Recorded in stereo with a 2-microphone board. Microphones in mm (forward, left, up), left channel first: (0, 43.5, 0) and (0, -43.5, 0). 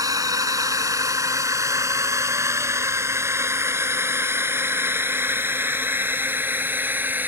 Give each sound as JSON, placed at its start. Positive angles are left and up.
{"t": 0.0, "sound": "a drone", "side_deg": -45}